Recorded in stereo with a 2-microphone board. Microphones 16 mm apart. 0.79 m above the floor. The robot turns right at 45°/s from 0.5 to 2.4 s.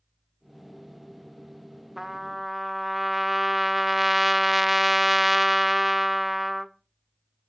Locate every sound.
2.0 s a trumpet: 30° right (ahead or behind), 0.6 m; by 6.7 s 15° right (ahead or behind), 0.6 m